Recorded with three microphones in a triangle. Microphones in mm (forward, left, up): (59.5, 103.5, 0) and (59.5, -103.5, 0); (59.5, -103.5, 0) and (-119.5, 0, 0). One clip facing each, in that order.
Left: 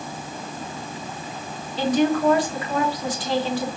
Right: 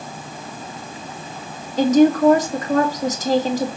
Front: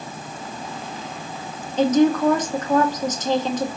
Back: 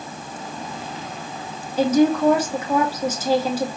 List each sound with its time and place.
1.8 s a woman speaking: 130° right, 1.6 m